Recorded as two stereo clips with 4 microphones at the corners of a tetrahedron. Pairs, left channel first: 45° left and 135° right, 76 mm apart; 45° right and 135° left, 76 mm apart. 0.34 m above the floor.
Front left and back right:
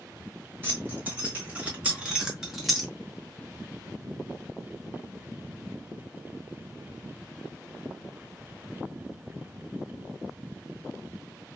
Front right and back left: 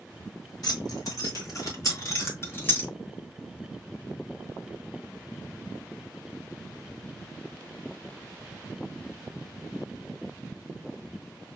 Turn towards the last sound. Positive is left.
turn(degrees=-30)